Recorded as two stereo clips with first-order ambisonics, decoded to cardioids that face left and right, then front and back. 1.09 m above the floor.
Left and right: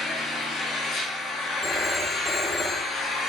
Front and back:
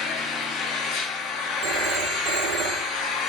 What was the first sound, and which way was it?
An engine running, 35° left.